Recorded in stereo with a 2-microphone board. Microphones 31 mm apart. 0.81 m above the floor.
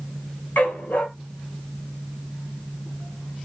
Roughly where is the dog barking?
Left.